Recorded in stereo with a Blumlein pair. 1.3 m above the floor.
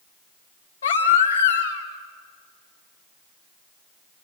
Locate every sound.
0.8 s a baby crying: 65° left, 2 m